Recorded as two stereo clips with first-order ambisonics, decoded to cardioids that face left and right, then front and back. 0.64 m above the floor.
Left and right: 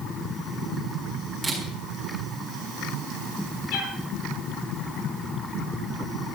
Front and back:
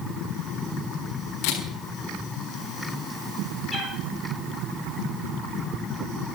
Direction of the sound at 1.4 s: 5° right.